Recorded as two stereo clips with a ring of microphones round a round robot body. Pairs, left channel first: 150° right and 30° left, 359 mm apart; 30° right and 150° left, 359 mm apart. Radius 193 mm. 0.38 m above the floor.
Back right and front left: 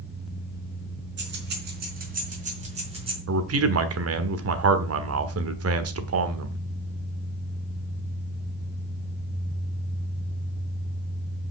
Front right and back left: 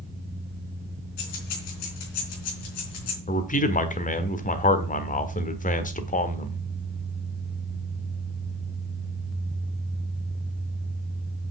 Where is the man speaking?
25° left, 1.4 m.